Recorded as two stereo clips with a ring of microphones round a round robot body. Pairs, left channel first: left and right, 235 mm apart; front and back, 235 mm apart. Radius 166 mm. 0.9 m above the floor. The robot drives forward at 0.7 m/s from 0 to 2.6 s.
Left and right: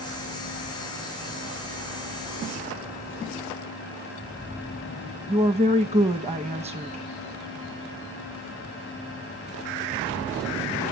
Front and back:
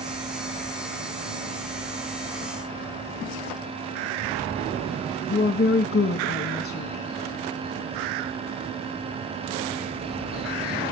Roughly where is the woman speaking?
Ahead right.